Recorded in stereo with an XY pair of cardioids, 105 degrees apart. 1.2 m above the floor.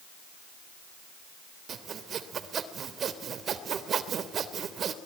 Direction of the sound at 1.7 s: 50° right.